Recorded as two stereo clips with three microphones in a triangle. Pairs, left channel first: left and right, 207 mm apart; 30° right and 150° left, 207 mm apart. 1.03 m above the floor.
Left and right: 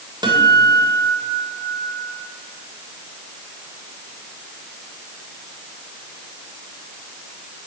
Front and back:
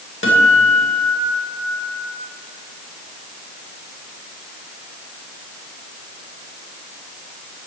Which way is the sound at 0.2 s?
20° right.